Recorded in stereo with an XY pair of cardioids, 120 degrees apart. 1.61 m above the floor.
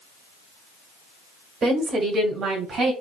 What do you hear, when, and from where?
1.6 s a woman speaking: 35° right, 1.3 m; by 2.9 s 45° right, 2 m